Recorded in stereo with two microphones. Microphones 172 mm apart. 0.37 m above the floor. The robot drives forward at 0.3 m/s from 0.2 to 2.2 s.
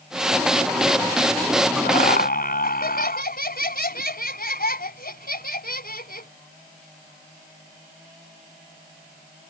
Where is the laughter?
70° left (ahead or behind); by 6.3 s 65° left (ahead or behind).